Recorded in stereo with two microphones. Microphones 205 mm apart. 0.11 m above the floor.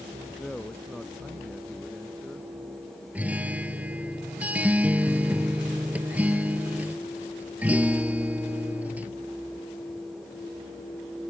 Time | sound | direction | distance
0.4 | a man speaking | 5° left (ahead or behind) | ?
3.1 | a guitar | 5° right (ahead or behind) | ?